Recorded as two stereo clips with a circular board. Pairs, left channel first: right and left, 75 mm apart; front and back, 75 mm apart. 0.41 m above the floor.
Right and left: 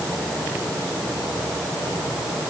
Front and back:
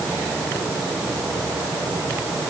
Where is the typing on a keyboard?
No typing on a keyboard in this recording.